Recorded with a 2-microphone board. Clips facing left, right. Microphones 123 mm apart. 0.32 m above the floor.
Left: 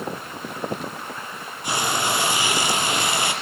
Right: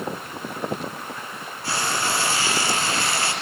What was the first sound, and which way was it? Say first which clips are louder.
Frying: left 2 dB; 15° left (ahead or behind).